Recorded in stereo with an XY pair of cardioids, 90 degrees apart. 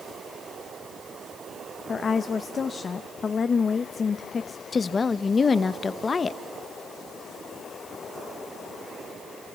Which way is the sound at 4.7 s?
40° left.